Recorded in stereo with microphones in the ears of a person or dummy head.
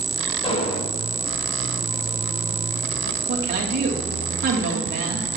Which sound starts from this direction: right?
A woman speaking, at 3.3 s.